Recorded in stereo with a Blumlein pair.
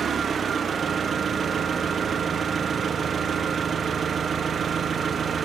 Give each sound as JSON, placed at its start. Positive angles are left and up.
{"t": 0.0, "sound": "an engine running", "azimuth_deg": -20, "distance_m": 0.9}